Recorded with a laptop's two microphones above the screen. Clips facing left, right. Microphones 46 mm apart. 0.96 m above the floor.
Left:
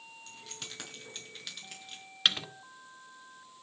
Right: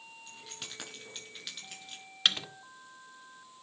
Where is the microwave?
5° left (ahead or behind), 0.9 m.